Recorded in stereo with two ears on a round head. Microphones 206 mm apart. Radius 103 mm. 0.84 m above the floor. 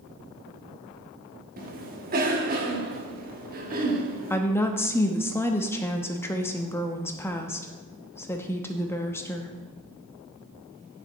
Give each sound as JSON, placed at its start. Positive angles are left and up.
{"t": 1.6, "sound": "a cough", "side_deg": -40, "distance_m": 1.3}
{"t": 4.3, "sound": "a woman speaking", "side_deg": 10, "distance_m": 0.8}